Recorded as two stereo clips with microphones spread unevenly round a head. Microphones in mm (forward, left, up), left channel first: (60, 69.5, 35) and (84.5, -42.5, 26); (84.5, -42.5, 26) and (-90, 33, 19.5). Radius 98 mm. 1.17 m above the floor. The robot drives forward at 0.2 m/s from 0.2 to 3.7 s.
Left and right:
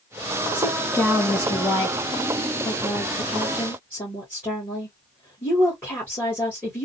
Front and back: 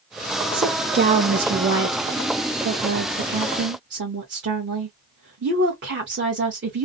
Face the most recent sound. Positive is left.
turn(degrees=180)